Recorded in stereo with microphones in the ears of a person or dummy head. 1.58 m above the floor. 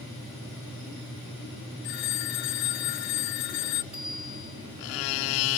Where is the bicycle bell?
5° right (ahead or behind), 4.5 m.